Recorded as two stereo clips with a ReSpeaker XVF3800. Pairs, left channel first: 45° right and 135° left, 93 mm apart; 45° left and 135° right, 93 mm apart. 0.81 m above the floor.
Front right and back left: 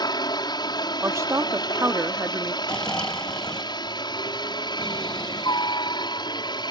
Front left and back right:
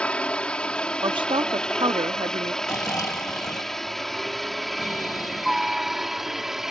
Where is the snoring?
30° left.